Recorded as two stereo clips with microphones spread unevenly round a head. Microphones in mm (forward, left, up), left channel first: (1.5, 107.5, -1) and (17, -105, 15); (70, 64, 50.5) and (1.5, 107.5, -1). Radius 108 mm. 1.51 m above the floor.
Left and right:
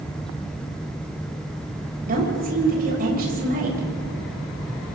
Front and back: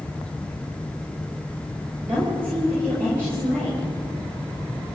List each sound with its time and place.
2.1 s a woman speaking: 135° right, 8.5 m